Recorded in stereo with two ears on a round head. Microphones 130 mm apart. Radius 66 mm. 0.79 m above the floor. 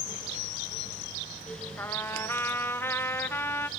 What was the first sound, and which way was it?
A trumpet, 15° left (ahead or behind).